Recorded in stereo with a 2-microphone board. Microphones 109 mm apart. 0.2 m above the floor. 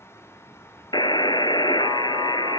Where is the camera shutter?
I don't hear a camera shutter.